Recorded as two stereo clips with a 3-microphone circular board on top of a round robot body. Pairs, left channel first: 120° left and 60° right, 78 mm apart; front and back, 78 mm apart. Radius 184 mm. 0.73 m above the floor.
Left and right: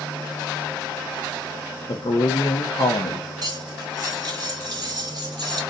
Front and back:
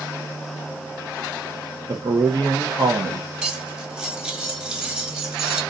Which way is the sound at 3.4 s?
100° right.